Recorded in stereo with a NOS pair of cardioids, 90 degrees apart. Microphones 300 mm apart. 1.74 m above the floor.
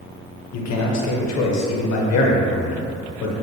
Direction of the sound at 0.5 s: 60° left.